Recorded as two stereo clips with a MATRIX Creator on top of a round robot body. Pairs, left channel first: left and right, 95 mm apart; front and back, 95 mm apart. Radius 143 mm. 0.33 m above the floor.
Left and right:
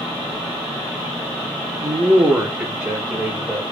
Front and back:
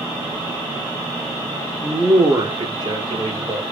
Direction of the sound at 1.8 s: 100° right.